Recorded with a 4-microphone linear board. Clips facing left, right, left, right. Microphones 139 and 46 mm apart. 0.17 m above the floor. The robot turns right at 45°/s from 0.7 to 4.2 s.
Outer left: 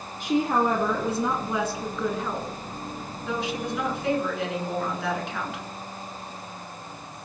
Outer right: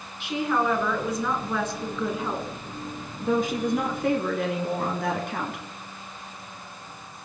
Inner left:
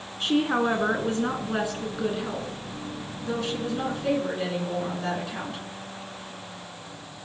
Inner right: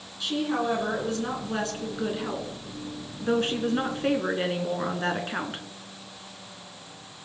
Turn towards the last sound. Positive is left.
turn(degrees=-80)